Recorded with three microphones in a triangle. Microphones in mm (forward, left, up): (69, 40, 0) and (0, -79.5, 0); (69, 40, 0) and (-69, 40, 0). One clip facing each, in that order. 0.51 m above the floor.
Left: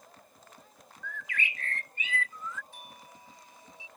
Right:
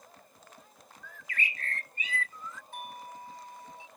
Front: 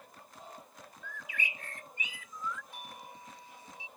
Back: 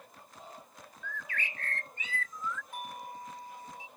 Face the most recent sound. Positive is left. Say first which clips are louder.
# right 8 dB, back 6 dB
turn(degrees=-145)